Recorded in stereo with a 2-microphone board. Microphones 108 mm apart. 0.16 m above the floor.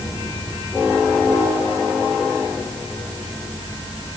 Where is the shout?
No shout in this recording.